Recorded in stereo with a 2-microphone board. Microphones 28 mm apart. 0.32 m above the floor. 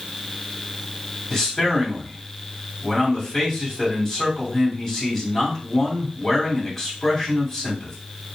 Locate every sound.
1.3 s a man speaking: 10° left (ahead or behind), 2.5 m